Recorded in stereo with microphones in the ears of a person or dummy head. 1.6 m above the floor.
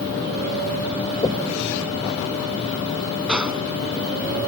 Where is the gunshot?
10° right (ahead or behind).